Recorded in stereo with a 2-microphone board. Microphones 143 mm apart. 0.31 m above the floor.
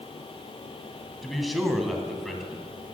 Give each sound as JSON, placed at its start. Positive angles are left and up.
{"t": 1.2, "sound": "a man speaking", "side_deg": 0, "distance_m": 2.0}